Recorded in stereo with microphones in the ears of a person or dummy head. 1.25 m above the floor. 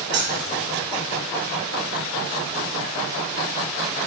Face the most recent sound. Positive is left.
turn(degrees=-85)